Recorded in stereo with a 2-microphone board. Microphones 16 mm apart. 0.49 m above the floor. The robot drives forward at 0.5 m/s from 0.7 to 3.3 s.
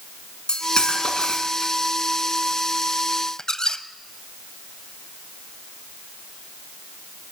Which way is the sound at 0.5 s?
60° left (ahead or behind).